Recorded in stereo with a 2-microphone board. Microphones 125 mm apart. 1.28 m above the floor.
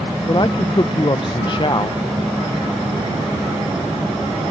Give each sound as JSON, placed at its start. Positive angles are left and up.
{"t": 0.3, "sound": "a man speaking", "side_deg": 40}